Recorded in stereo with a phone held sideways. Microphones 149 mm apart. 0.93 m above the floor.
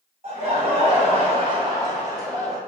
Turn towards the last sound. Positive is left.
turn(degrees=-10)  # may be behind; listen again after turning